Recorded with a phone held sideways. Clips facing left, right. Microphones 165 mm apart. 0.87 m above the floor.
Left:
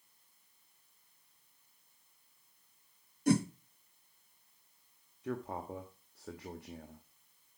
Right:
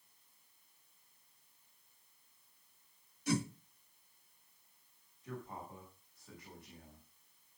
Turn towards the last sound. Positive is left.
turn(degrees=70)  # may be behind; listen again after turning